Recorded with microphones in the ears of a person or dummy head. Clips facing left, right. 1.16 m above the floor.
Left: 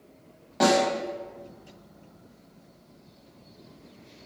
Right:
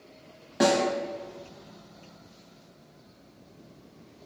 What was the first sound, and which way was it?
A snare drum, 15° right (ahead or behind).